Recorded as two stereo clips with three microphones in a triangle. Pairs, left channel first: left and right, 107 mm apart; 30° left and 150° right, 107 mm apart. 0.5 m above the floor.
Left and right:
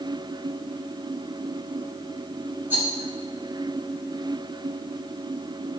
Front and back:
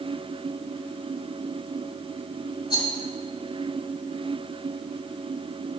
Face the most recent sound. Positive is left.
turn(degrees=-15)